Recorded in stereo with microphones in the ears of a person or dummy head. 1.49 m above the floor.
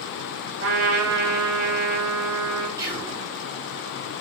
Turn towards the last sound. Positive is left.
turn(degrees=-20)  # may be behind; listen again after turning